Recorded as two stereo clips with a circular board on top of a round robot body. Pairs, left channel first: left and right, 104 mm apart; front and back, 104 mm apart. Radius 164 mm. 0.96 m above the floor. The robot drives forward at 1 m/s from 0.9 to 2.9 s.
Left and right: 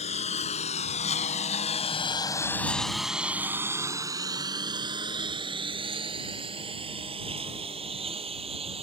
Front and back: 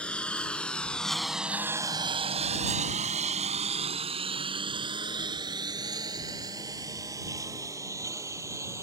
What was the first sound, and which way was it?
A lawn mower, 80° left.